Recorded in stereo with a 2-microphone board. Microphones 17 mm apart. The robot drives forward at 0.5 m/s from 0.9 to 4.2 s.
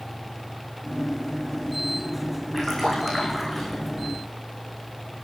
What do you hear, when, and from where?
2.5 s a splash: 10° left (ahead or behind), 8 m